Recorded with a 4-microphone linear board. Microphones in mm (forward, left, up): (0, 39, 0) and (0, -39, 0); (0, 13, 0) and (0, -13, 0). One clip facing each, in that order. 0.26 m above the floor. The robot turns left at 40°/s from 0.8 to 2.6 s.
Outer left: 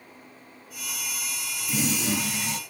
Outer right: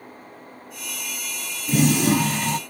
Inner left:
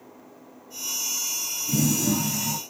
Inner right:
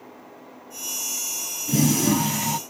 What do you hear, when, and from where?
1.7 s a toilet flushing: 70° right, 0.5 m; by 2.6 s 105° right, 0.5 m